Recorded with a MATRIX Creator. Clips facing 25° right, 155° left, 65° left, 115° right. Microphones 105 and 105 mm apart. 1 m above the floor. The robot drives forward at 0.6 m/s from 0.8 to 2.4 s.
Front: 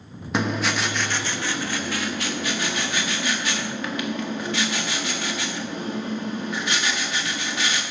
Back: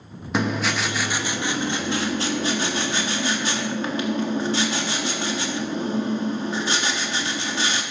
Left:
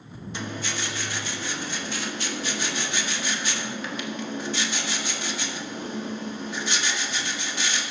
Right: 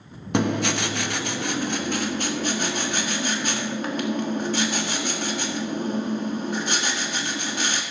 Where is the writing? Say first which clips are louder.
Back 1 dB, right 11 dB; 115° right, 0.9 m; by 7.8 s 150° right, 1.6 m.